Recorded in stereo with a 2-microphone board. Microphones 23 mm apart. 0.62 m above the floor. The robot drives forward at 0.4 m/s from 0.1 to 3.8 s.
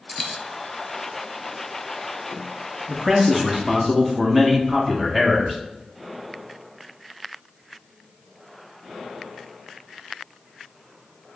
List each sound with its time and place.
0.1 s a dropped coin: centre (ahead or behind), 0.6 m
2.9 s a man speaking: 15° right (ahead or behind), 0.8 m; by 5.6 s 10° right (ahead or behind), 0.9 m